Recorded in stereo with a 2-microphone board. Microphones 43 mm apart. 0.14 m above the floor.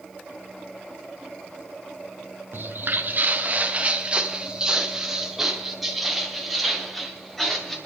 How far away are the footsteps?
About 2.0 m.